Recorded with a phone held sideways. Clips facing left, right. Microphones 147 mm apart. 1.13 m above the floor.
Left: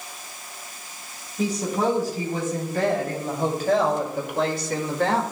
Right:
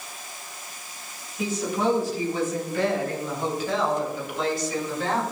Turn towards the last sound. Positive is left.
turn(degrees=70)  # may be behind; listen again after turning